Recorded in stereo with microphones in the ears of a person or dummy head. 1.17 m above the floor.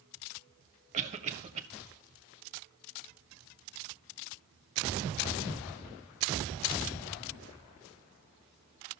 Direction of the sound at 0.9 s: 35° right (ahead or behind).